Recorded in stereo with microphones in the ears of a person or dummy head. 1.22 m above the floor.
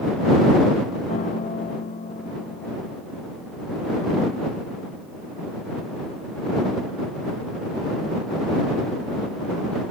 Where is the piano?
40° left (ahead or behind).